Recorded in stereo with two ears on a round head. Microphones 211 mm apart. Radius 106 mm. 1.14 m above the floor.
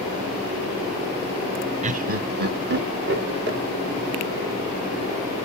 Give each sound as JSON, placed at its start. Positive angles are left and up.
{"t": 1.8, "sound": "laughter", "side_deg": -30, "distance_m": 0.6}